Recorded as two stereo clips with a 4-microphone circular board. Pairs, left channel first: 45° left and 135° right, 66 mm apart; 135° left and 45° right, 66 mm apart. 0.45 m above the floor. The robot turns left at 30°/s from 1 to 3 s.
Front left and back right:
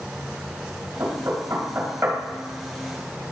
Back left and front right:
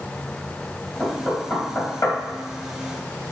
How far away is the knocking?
About 2.5 m.